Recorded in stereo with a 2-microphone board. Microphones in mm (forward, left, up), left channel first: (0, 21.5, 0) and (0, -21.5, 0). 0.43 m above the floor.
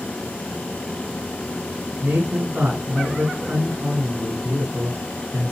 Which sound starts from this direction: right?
A man speaking, at 2.0 s.